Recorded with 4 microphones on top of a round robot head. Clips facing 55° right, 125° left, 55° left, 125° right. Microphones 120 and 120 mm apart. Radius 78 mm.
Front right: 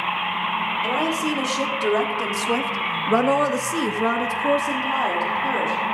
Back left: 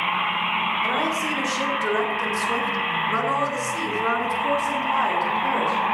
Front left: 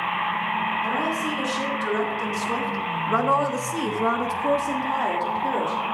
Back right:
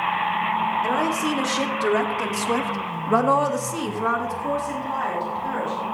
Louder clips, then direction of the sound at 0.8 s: Front right 2 dB, back right 3 dB; 120° right.